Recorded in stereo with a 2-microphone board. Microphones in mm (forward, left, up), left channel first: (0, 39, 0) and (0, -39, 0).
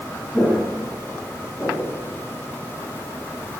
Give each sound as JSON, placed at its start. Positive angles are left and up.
{"t": 0.3, "sound": "footsteps", "side_deg": 15, "distance_m": 2.5}